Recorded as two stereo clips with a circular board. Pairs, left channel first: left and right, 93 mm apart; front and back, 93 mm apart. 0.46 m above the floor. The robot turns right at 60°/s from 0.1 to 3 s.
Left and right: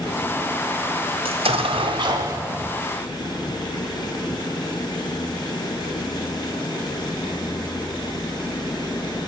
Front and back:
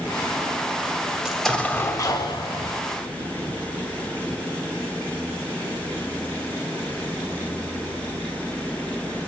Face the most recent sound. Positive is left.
turn(degrees=5)